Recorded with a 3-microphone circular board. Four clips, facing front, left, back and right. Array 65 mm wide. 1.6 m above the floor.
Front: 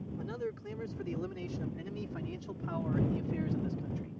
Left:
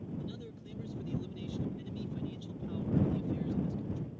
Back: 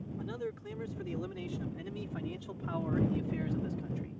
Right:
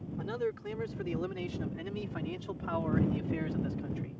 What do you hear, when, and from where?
0.2 s a man speaking: 85° right; by 4.2 s 100° right